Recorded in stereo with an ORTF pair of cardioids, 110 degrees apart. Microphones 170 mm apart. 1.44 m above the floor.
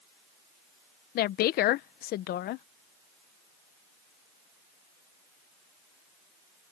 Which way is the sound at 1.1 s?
65° left.